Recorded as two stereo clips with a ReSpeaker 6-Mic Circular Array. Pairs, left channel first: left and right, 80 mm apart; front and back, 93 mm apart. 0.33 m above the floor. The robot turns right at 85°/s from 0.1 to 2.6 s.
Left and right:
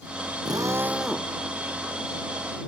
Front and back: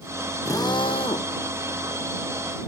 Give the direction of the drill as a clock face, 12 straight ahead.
2 o'clock.